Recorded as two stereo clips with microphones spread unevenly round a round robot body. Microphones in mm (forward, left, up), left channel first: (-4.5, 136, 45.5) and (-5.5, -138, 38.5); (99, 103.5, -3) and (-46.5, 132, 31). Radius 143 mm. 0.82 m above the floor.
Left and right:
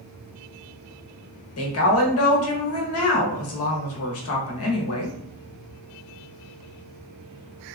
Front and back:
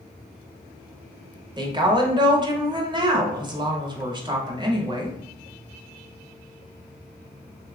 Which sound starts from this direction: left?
A woman speaking, at 1.6 s.